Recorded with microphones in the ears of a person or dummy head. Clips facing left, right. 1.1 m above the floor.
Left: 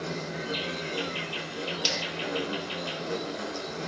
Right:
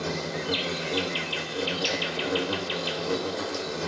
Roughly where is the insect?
Right.